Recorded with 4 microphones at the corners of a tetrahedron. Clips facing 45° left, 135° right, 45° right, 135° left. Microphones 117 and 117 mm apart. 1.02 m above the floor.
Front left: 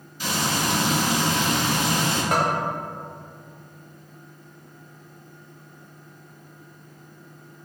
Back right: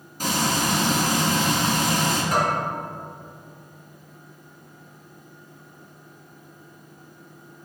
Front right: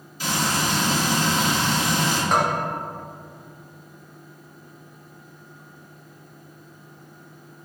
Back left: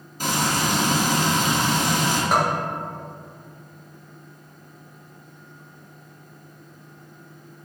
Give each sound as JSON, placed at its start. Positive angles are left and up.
{"t": 0.2, "sound": "frying", "azimuth_deg": 180, "distance_m": 1.3}
{"t": 2.3, "sound": "a bell", "azimuth_deg": 50, "distance_m": 1.1}